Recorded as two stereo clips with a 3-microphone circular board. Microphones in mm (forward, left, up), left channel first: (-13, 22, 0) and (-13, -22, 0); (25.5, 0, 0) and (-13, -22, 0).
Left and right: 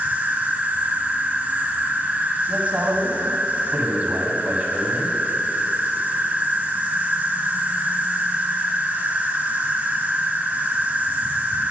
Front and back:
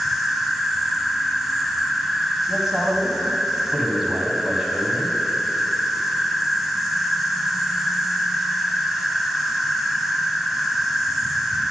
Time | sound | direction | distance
0.0 | an insect | 65° right | 0.8 m
2.5 | a man speaking | 75° right | 1.4 m